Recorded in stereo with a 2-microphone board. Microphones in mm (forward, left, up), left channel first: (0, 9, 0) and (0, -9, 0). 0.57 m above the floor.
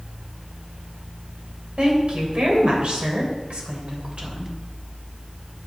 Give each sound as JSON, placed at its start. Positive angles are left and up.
{"t": 1.8, "sound": "a woman speaking", "side_deg": -65, "distance_m": 3.0}